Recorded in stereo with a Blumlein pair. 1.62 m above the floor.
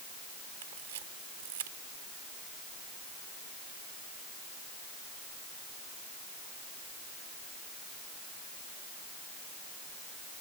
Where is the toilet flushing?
No toilet flushing in this recording.